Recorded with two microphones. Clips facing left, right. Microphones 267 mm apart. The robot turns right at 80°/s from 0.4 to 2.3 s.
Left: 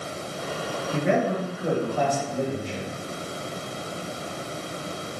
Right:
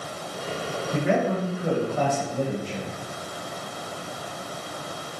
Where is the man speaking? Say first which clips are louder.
Even; 105° left, 1.7 m; by 2.9 s 140° right, 1.7 m.